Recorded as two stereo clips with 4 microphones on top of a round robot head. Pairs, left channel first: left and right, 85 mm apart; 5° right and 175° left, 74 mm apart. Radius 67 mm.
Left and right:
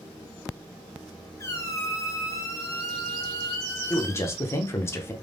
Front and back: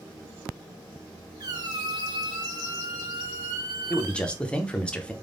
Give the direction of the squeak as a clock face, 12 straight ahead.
7 o'clock.